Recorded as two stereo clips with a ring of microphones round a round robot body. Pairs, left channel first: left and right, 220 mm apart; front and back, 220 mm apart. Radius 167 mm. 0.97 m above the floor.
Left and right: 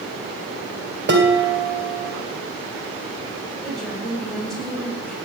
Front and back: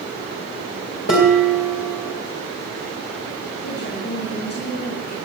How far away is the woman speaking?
About 8.5 m.